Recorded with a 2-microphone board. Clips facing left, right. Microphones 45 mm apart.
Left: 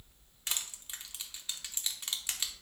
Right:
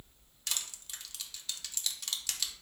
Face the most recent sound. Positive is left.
turn(degrees=25)  # may be behind; listen again after turning